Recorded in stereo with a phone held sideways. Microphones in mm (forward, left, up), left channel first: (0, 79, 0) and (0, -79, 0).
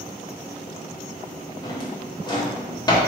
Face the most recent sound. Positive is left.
turn(degrees=25)  # may be behind; listen again after turning